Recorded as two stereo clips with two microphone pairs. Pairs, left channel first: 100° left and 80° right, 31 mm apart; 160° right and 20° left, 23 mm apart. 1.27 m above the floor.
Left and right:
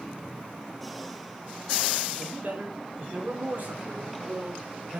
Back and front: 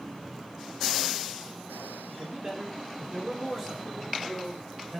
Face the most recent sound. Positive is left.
turn(degrees=-60)